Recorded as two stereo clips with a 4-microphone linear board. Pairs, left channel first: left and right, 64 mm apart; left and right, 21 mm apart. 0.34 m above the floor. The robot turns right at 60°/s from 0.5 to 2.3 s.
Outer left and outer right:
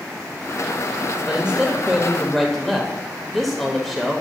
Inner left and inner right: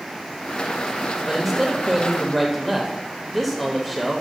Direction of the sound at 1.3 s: 15° right (ahead or behind).